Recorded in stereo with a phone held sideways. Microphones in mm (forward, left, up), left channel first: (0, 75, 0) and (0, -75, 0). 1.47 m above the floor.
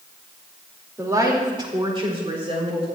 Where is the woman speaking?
20° right (ahead or behind), 2.5 m; by 2.9 s 45° right (ahead or behind), 4.5 m.